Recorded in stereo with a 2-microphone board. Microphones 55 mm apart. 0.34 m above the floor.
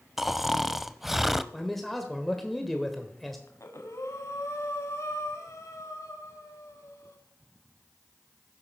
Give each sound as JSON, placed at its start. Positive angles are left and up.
{"t": 0.2, "sound": "snoring", "side_deg": -5, "distance_m": 0.5}
{"t": 1.5, "sound": "a man speaking", "side_deg": 5, "distance_m": 1.3}
{"t": 3.5, "sound": "breathing", "side_deg": 65, "distance_m": 1.5}